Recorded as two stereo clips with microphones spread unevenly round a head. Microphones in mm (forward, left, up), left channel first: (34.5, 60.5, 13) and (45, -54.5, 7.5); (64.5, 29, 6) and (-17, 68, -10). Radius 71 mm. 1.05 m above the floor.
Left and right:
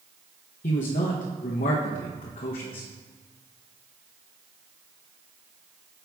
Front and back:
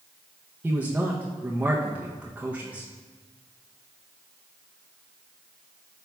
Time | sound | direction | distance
0.6 | a man speaking | 85° left | 0.7 m